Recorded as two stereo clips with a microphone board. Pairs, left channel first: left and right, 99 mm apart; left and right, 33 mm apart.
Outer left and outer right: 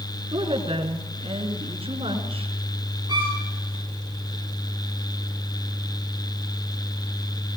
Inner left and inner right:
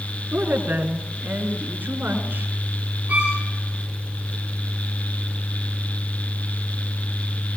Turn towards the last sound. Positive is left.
turn(degrees=-40)  # may be behind; listen again after turning